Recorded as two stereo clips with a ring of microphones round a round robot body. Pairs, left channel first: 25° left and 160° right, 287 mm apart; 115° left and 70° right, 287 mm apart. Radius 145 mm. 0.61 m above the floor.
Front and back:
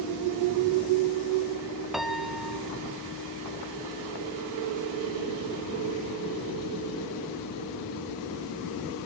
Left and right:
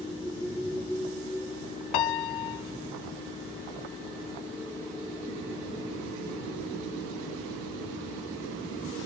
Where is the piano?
115° left, 0.6 m.